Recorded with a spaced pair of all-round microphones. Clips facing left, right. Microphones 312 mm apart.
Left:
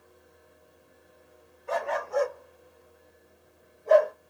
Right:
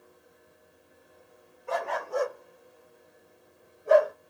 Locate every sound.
1.7 s a dog barking: 55° right (ahead or behind), 2 m; by 4.1 s 5° right (ahead or behind), 1.2 m